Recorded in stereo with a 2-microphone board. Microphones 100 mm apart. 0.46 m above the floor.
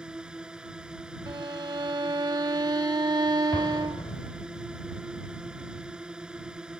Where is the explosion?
65° left (ahead or behind).